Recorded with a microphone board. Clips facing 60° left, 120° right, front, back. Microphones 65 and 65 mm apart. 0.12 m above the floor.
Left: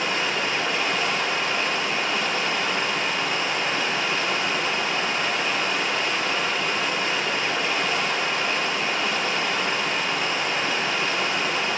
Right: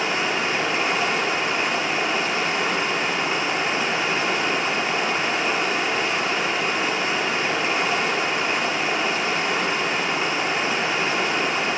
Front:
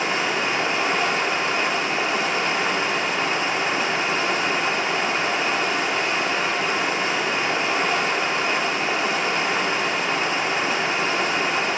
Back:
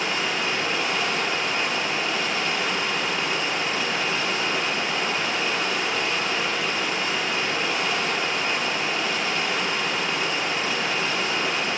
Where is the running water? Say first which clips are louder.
Right 2 dB, front 3 dB; 60° right, 1.7 m.